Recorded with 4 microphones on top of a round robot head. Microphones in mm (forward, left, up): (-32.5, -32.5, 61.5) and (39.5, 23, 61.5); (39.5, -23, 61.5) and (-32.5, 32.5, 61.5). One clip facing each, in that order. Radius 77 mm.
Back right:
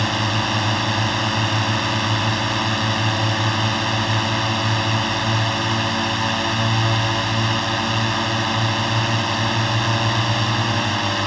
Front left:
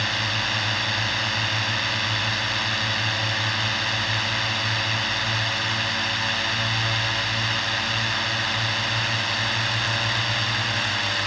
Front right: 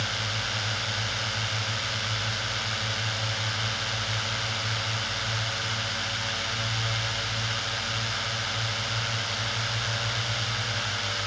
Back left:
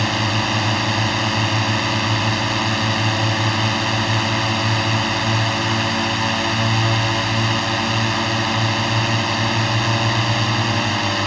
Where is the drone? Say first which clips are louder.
Back right 6 dB, back left 12 dB; 165° left.